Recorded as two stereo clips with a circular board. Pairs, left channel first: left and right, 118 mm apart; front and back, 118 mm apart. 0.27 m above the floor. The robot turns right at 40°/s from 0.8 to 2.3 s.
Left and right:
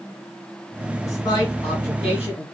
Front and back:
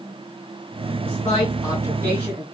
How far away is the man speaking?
About 2.5 m.